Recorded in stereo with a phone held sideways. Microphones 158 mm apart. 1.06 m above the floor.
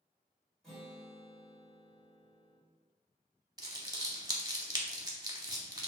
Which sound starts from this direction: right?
Crumpling, at 3.6 s.